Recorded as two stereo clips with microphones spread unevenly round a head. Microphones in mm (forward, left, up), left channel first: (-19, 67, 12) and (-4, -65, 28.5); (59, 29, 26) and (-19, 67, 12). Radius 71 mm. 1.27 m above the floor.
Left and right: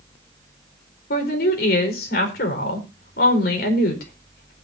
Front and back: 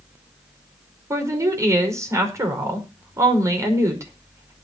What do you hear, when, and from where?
1.1 s a woman speaking: 100° left, 5 m